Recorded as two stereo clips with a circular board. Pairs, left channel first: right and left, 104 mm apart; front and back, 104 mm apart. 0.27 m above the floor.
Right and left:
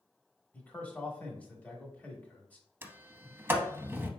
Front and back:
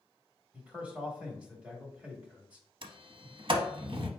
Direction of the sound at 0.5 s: 130° right.